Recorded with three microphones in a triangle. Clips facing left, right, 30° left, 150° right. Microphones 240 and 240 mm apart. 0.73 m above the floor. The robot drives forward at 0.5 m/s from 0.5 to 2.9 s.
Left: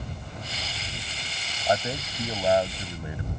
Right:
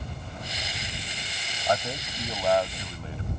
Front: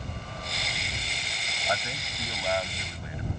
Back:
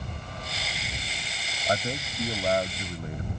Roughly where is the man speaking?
Behind.